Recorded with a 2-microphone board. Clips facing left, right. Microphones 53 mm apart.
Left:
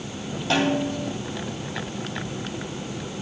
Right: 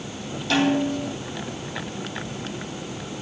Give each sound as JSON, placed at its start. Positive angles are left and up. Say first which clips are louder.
{"t": 0.5, "sound": "a snare drum", "louder": "right 2 dB", "side_deg": 40, "distance_m": 2.5}